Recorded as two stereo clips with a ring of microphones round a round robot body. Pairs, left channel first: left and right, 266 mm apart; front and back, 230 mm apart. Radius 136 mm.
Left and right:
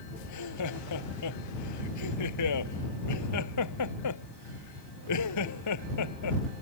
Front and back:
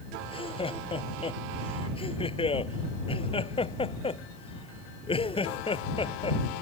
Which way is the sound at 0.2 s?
65° left.